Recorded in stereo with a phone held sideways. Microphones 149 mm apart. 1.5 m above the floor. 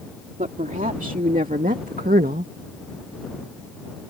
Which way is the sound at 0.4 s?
60° right (ahead or behind).